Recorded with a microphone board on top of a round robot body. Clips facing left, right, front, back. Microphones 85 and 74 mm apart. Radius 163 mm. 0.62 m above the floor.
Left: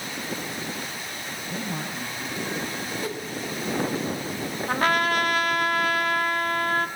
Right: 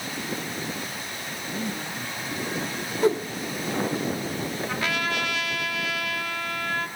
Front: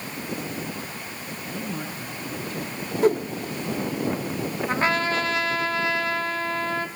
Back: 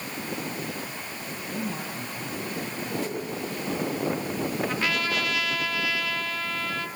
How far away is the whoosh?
About 1.8 m.